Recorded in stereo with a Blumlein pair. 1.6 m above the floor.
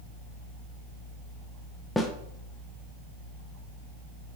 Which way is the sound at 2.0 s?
5° left.